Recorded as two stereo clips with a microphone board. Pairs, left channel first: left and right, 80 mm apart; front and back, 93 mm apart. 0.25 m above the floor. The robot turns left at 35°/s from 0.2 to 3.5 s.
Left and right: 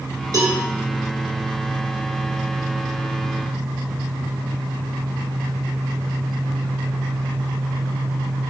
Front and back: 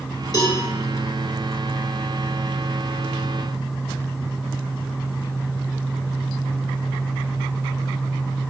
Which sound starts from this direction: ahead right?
A cowbell, at 0.3 s.